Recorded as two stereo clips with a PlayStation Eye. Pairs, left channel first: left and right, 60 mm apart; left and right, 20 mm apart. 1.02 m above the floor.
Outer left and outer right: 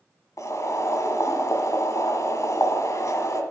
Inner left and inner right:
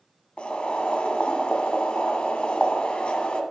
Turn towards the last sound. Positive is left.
turn(degrees=60)  # may be behind; listen again after turning